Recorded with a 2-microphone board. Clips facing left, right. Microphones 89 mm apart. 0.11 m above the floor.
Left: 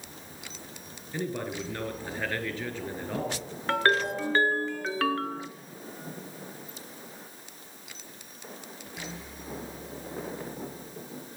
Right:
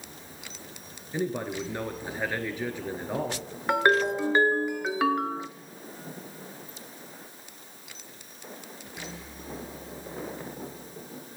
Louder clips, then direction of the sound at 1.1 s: Right 3 dB; 15° right (ahead or behind).